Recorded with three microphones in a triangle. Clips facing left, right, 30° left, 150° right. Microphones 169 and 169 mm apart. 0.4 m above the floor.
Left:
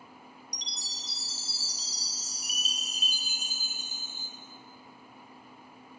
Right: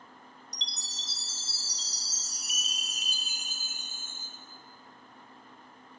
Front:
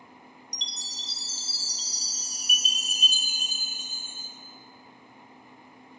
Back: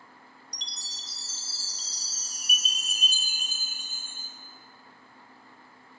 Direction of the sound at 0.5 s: 150° right.